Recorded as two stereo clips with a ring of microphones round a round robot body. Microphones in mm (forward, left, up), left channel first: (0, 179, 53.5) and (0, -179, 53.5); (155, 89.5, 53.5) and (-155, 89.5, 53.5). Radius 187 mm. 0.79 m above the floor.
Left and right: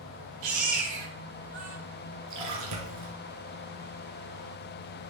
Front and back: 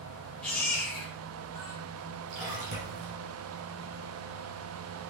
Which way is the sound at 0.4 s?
85° right.